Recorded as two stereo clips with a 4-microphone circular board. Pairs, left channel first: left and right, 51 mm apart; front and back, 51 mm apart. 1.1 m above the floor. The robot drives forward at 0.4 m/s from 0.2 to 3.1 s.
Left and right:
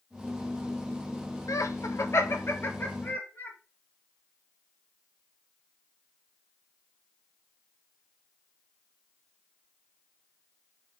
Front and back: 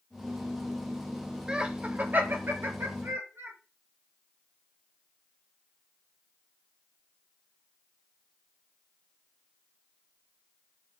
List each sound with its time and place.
1.5 s laughter: 105° left, 0.6 m; by 3.6 s 145° left, 1.0 m